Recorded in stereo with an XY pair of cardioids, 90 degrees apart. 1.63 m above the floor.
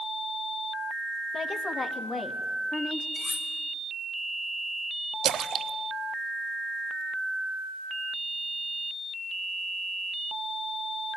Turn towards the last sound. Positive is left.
turn(degrees=-60)